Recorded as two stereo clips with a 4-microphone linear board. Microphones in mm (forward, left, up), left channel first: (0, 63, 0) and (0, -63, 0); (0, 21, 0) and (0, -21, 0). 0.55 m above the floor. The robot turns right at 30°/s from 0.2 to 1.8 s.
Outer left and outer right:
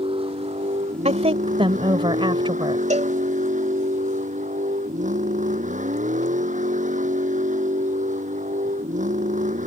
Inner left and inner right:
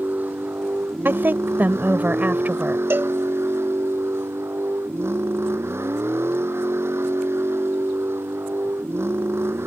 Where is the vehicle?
130° right; by 9.7 s 85° right.